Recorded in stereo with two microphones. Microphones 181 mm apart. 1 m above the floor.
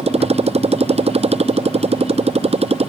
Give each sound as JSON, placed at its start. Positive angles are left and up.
{"t": 0.0, "sound": "a motorcycle", "side_deg": -35}